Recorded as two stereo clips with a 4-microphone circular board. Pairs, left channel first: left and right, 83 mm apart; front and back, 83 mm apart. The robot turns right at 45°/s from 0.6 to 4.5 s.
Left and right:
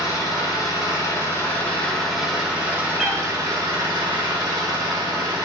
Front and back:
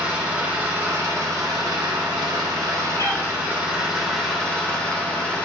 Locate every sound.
0.0 s an engine running: 110° left, 1.1 m; by 5.5 s 75° right, 1.1 m
3.0 s a cat meowing: straight ahead, 1.1 m; by 3.2 s 10° left, 1.1 m